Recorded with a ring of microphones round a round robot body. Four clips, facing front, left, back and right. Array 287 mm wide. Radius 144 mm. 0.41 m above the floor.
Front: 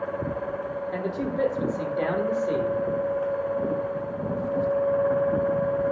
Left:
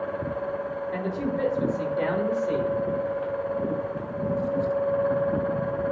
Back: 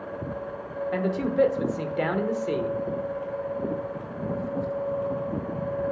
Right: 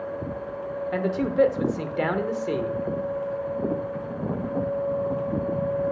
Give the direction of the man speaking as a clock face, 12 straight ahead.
4 o'clock.